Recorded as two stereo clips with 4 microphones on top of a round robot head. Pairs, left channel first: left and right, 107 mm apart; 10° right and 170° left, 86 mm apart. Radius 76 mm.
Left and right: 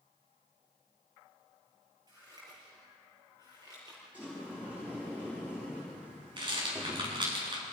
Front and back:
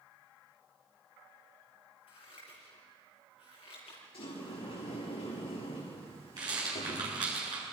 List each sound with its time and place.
2.1 s scissors: 30° right, 8 m
4.1 s a sliding door: 10° right, 7 m
6.4 s a rattle: 135° right, 8 m